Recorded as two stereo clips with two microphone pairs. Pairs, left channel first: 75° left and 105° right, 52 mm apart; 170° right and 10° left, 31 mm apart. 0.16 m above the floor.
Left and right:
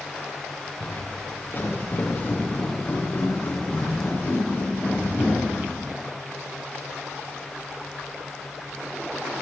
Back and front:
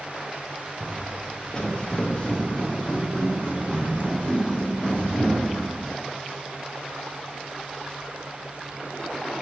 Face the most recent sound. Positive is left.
turn(degrees=135)